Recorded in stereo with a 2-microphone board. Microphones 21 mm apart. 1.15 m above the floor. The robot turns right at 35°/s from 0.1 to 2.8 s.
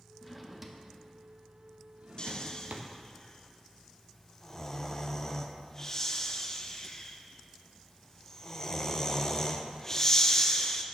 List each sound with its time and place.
0.2 s a drawer: centre (ahead or behind), 0.7 m; by 2.9 s 75° right (ahead or behind), 0.7 m
2.2 s snoring: 40° left (ahead or behind), 0.5 m; by 10.8 s 20° left (ahead or behind), 0.5 m